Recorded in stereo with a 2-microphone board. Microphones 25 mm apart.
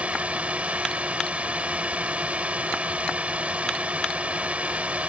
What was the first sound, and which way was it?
A drone, 60° right (ahead or behind).